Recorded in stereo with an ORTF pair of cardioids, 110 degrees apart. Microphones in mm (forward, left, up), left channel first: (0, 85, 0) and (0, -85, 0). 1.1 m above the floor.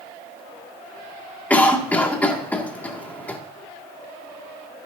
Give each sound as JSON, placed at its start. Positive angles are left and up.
{"t": 1.5, "sound": "a cough", "azimuth_deg": 10, "distance_m": 2.5}